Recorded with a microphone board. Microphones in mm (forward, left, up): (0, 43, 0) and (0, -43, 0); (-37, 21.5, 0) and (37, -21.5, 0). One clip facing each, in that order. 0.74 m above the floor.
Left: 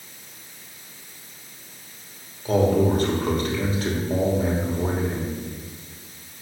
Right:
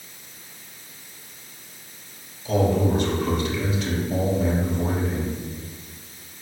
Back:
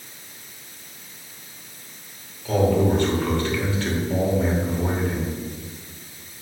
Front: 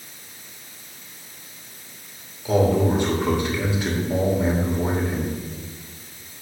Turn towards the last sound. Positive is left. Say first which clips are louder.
# left 2 dB, even
turn(degrees=45)